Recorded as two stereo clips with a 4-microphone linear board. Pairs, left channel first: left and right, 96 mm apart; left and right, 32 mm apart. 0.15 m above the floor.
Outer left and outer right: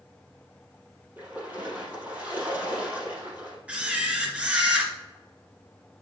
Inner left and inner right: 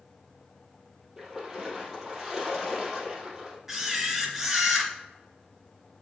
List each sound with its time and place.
1.2 s a splash: 20° right (ahead or behind), 3.5 m
3.7 s a camera shutter: 15° right (ahead or behind), 2.5 m